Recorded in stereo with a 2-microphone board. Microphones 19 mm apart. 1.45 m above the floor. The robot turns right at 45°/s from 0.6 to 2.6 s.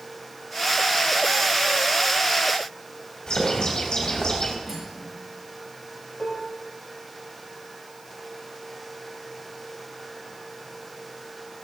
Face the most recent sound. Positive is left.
turn(degrees=80)